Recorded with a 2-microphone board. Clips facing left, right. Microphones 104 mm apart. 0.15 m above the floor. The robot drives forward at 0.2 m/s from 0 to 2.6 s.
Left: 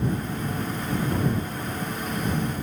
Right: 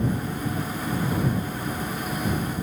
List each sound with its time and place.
Only background noise.